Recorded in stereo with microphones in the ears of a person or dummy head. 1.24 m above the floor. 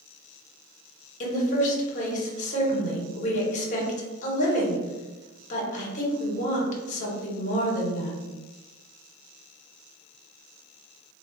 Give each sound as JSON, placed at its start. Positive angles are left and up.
{"t": 1.2, "sound": "a woman speaking", "side_deg": 40, "distance_m": 0.9}